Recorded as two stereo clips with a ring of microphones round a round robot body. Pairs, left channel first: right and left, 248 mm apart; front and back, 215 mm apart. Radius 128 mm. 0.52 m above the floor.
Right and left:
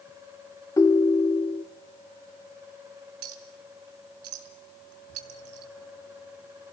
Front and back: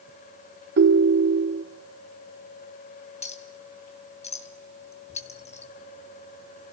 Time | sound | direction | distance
0.8 | a ringtone | 165° right | 0.9 m
3.2 | a clink | 60° left | 3 m